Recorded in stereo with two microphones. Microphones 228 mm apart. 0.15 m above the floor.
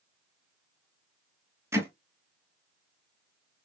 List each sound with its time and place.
1.7 s hammering: 10° right (ahead or behind), 1.0 m